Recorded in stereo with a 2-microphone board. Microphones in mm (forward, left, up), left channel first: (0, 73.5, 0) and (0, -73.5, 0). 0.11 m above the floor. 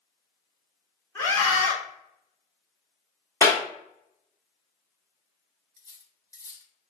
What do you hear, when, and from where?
1.1 s a scream: 15° left (ahead or behind), 1.2 m
3.4 s a clap: 20° left (ahead or behind), 1.0 m
5.8 s cutlery clinking: 20° left (ahead or behind), 0.8 m